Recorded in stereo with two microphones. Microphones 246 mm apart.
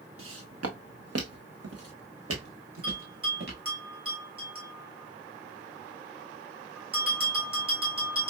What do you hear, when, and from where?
0.2 s footsteps: 60° right (ahead or behind), 0.8 m; by 3.6 s 55° right (ahead or behind), 1.9 m
2.8 s a bell: 60° right (ahead or behind), 2.0 m